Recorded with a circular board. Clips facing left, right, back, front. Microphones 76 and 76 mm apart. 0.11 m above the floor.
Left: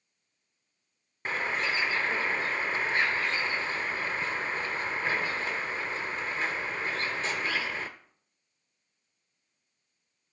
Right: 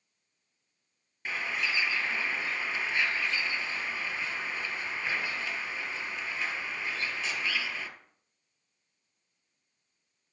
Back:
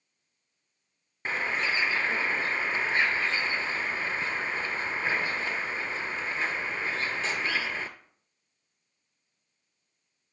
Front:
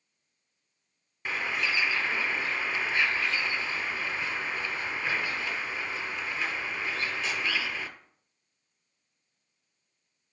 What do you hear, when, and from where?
1.2 s a bird: 130° left, 0.9 m